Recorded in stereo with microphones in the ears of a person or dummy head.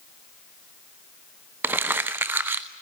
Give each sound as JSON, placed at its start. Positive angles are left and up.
{"t": 1.6, "sound": "crumpling", "side_deg": -10, "distance_m": 1.0}